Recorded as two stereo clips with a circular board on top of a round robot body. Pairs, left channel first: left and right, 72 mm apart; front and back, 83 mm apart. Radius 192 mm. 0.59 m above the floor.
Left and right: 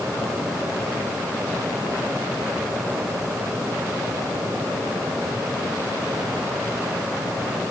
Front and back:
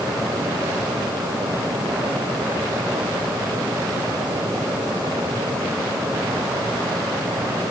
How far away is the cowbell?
I don't hear a cowbell.